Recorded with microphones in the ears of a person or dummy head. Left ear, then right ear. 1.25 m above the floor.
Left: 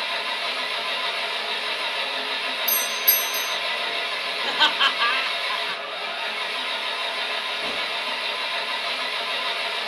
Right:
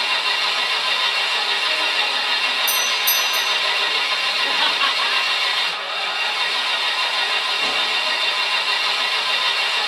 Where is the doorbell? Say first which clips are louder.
Right 6 dB; 15° right (ahead or behind), 0.8 m.